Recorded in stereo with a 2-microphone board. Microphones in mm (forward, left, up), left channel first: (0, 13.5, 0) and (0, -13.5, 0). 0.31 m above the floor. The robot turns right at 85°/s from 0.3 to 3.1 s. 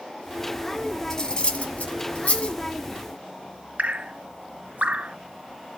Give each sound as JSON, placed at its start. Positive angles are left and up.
{"t": 1.1, "sound": "cutlery clinking", "side_deg": 15, "distance_m": 1.7}
{"t": 3.8, "sound": "dripping", "side_deg": -65, "distance_m": 0.7}